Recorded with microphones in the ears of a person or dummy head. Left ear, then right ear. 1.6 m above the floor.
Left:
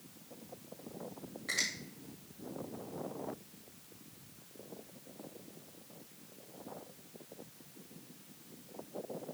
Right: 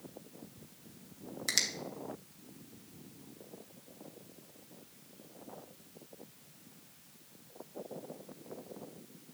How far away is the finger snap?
About 2 m.